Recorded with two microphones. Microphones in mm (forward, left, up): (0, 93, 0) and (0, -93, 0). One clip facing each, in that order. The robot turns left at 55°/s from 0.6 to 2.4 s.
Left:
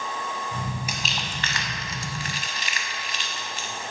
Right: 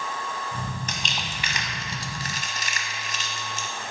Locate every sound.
0.9 s crumpling: 10° left (ahead or behind), 0.8 m; by 3.7 s 45° right (ahead or behind), 0.8 m